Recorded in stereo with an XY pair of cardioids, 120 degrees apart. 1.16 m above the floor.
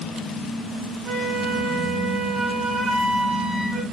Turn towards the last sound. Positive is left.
turn(degrees=-40)